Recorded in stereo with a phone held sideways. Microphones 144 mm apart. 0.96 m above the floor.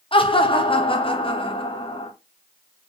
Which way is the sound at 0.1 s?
35° left (ahead or behind).